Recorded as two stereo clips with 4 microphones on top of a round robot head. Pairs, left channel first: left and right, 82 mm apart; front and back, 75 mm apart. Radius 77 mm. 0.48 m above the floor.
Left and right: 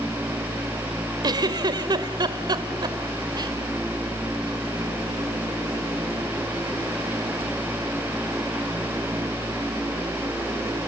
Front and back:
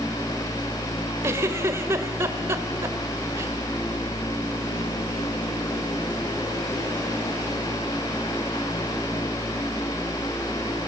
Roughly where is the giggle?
Behind right.